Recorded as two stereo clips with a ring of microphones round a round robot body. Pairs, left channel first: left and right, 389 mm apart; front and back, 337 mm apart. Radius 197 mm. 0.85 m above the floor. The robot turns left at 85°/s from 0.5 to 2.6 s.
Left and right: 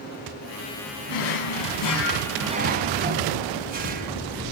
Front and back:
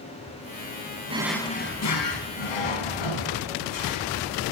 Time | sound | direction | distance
1.1 | a drawer | 110° left | 3 m